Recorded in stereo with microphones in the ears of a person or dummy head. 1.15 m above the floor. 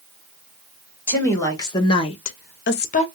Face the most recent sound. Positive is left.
turn(degrees=35)  # may be behind; listen again after turning